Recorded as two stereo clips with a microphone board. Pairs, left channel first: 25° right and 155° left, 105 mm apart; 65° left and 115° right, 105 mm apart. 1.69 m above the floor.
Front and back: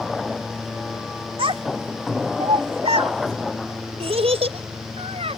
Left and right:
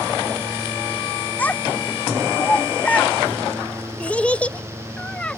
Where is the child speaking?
140° left; by 5.4 s 145° left.